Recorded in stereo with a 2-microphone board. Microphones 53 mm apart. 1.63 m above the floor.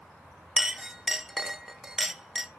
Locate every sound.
0.6 s a clink: 10° right (ahead or behind), 0.5 m